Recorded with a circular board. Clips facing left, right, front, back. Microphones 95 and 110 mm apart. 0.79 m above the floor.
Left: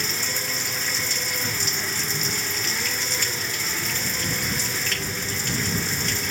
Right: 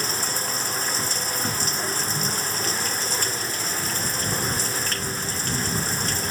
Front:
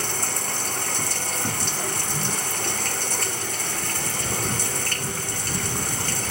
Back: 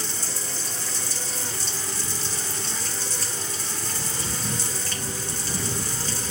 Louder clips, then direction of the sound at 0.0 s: Right 2 dB, front 5 dB; 35° right.